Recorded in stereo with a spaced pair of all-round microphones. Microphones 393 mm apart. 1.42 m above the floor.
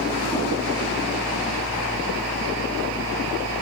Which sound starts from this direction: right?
A fan, at 0.0 s.